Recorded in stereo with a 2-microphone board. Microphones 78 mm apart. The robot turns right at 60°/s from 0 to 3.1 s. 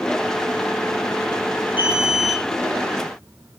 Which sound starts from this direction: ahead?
An alarm, at 1.8 s.